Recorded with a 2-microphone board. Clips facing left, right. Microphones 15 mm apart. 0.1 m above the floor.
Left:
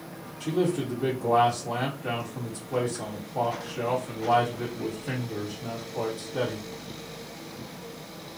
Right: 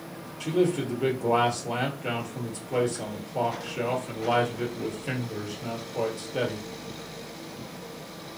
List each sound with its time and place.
0.4 s a man speaking: 40° right (ahead or behind), 1.7 m